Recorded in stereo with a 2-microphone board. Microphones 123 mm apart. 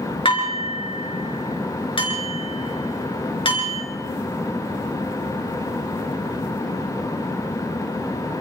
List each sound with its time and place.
0.2 s dishes clattering: 45° left (ahead or behind), 4.5 m